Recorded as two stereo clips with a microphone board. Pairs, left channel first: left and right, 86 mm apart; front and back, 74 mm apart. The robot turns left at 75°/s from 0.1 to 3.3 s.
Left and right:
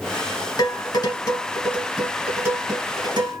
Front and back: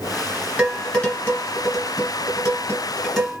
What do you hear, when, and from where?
0.6 s dishes clattering: 110° left, 1.6 m; by 3.4 s 95° right, 1.6 m